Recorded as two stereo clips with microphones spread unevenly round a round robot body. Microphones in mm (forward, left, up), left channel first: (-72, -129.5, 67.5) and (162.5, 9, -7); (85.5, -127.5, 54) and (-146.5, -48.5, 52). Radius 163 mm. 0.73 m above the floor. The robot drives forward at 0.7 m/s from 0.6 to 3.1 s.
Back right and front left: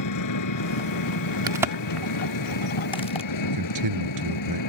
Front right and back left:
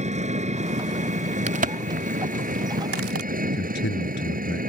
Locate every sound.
0.0 s an engine running: 135° right; by 4.7 s 145° right
1.5 s a crack: 100° left; by 3.3 s 135° left
3.4 s a man speaking: 40° left